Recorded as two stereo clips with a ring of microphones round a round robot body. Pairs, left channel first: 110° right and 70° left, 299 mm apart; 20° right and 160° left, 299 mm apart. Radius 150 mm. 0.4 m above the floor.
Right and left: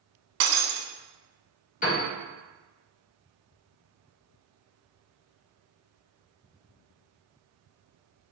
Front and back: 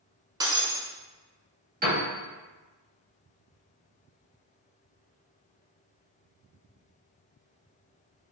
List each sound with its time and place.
0.4 s breaking glass: 80° left, 0.5 m
1.8 s a piano: 160° right, 1.4 m